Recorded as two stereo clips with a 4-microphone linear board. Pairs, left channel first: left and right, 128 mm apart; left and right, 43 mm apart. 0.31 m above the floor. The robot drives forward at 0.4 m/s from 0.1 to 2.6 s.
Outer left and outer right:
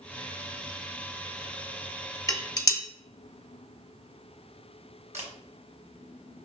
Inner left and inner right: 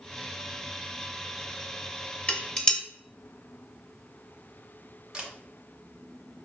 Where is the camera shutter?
20° right (ahead or behind), 1.3 m.